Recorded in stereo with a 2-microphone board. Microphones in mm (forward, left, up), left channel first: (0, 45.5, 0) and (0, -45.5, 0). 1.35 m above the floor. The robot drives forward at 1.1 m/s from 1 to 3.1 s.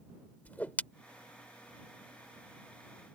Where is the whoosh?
15° left (ahead or behind).